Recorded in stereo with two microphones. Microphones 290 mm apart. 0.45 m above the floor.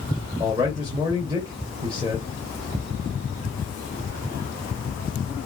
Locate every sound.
0.4 s a man speaking: 20° right (ahead or behind), 1.7 m